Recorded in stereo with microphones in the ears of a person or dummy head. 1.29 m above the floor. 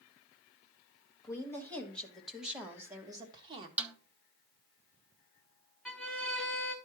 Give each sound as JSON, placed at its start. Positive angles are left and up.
{"t": 1.2, "sound": "a woman speaking", "side_deg": 20, "distance_m": 1.7}
{"t": 3.8, "sound": "a snare drum", "side_deg": -10, "distance_m": 0.6}
{"t": 5.8, "sound": "a violin", "side_deg": 10, "distance_m": 1.1}